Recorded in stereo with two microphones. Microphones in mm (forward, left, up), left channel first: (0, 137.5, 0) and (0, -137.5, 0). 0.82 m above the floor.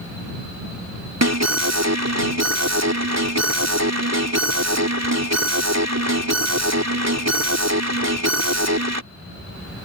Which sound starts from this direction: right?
An alarm, at 1.2 s.